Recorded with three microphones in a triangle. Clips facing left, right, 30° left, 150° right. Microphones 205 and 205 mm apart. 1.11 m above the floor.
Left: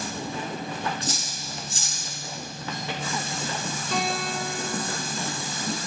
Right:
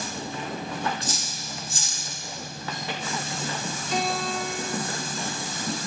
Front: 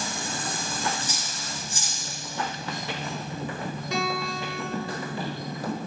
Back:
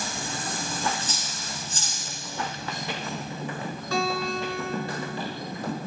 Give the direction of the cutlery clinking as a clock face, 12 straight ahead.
8 o'clock.